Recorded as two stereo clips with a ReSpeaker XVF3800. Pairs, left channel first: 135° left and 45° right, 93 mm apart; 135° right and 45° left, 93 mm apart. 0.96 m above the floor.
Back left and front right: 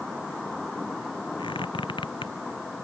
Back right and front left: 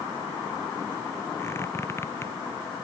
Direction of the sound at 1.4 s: 160° left.